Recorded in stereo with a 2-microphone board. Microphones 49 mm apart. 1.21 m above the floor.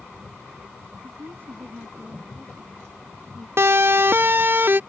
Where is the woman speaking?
45° right (ahead or behind).